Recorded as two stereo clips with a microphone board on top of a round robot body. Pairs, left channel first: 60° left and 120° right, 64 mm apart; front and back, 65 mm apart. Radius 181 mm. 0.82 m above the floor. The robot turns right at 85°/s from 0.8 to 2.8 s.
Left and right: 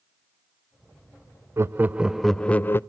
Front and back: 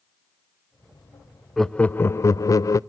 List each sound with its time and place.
1.6 s laughter: 90° right, 0.6 m; by 2.8 s 15° left, 0.6 m